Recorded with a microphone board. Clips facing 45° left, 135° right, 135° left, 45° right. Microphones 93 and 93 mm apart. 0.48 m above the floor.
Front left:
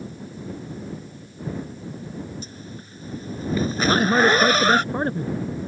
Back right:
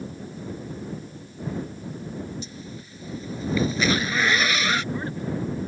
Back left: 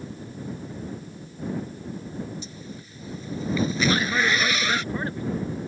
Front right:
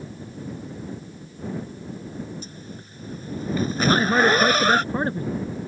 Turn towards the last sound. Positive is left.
turn(degrees=10)